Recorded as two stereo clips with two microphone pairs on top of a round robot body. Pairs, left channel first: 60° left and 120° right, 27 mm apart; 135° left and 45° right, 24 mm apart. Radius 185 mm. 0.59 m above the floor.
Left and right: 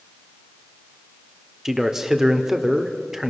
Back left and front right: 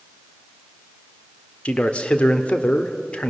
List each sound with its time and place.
1.6 s a man speaking: 165° left, 2 m